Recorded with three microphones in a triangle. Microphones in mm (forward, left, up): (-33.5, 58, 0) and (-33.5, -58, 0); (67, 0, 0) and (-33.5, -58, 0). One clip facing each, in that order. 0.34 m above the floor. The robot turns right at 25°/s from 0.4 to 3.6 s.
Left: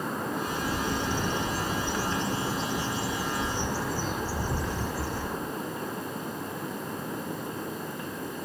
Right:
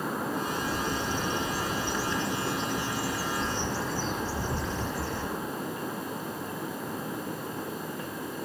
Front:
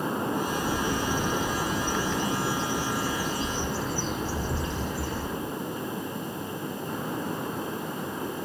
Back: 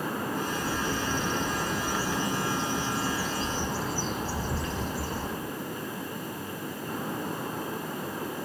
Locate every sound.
0.5 s a bird: 90° left, 1.3 m; by 5.4 s 165° left, 1.3 m